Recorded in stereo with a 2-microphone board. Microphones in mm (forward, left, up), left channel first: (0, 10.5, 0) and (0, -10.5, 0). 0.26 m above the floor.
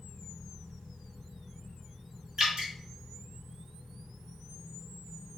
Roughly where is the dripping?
Right.